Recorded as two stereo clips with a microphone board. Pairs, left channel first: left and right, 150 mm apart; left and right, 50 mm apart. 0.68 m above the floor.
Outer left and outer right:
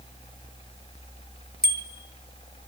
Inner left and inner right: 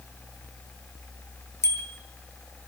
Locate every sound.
1.6 s a bicycle bell: 70° left (ahead or behind), 3 m